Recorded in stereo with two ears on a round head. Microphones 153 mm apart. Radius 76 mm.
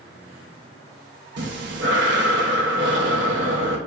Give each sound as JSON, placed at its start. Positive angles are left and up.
{"t": 1.4, "sound": "breathing", "side_deg": -70, "distance_m": 1.6}